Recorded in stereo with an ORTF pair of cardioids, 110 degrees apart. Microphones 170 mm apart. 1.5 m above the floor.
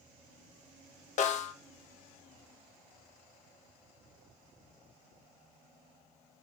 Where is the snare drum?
45° left, 0.6 m.